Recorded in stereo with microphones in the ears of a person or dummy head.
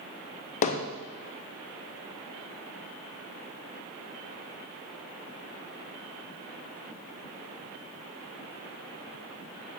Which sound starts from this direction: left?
Hammering, at 0.6 s.